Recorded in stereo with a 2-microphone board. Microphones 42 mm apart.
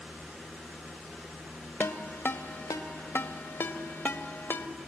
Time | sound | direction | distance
1.8 | a ringtone | 85° left | 0.9 m